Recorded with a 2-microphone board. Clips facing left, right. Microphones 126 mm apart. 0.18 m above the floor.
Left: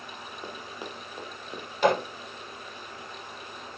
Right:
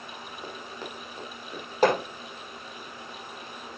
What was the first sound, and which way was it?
Running footsteps, 10° left (ahead or behind).